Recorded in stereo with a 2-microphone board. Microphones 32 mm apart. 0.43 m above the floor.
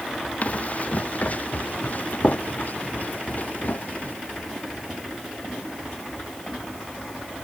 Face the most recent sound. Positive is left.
turn(degrees=50)  # may be behind; listen again after turning